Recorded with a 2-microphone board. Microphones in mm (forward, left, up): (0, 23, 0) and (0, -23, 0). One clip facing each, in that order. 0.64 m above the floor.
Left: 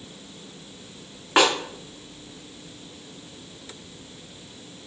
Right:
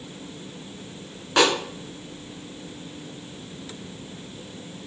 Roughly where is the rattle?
I don't hear a rattle.